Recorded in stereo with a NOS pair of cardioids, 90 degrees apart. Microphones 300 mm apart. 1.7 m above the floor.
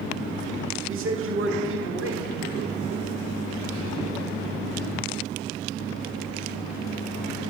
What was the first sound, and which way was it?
A man speaking, 45° right.